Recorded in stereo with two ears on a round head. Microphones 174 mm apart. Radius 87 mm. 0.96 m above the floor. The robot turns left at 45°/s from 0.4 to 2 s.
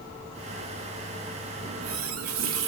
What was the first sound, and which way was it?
A running tap, 70° right (ahead or behind).